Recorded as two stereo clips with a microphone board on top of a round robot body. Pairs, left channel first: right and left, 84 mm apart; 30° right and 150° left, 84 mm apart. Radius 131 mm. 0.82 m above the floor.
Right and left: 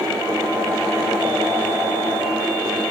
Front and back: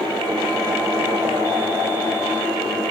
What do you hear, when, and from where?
Only background noise.